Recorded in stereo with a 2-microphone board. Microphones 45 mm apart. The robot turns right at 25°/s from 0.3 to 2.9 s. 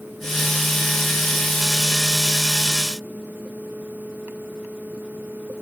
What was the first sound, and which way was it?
Only background noise.